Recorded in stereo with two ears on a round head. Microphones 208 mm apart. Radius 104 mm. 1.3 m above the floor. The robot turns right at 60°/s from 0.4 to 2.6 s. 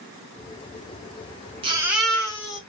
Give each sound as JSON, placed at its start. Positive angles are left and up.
{"t": 1.6, "sound": "a baby crying", "azimuth_deg": -25, "distance_m": 1.4}